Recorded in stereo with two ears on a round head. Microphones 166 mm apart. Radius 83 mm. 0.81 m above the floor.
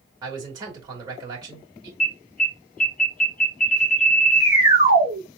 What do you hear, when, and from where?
0.2 s a man speaking: 20° right (ahead or behind), 3 m
2.0 s an alarm: 50° left (ahead or behind), 2.5 m